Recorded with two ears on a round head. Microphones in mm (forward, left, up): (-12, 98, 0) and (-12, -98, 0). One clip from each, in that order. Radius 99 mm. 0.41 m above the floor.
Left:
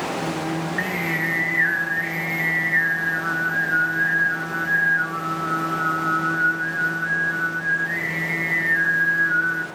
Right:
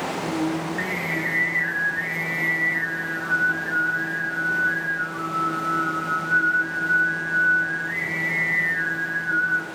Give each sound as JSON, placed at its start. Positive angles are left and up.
{"t": 0.2, "sound": "singing", "side_deg": 30, "distance_m": 2.0}